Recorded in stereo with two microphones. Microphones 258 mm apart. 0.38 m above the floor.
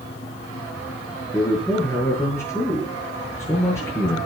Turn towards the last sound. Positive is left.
turn(degrees=10)  # may be behind; listen again after turning